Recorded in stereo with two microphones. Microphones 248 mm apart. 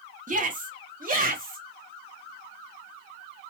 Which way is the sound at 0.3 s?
35° right (ahead or behind).